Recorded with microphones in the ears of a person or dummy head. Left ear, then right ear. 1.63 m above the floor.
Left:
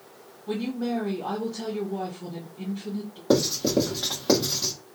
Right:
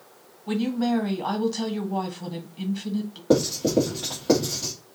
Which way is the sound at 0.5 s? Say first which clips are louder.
Right 3 dB; 40° right (ahead or behind).